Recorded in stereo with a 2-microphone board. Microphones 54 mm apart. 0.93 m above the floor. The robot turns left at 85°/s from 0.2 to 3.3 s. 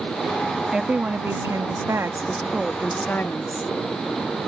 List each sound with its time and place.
0.7 s a woman speaking: 10° right; by 3.7 s 130° left